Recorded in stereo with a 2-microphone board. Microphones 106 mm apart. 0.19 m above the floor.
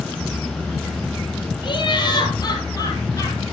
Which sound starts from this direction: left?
Laughter, at 1.6 s.